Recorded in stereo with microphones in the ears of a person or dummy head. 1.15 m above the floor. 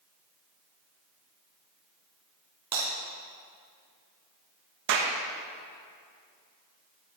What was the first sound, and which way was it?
Breaking glass, 30° right (ahead or behind).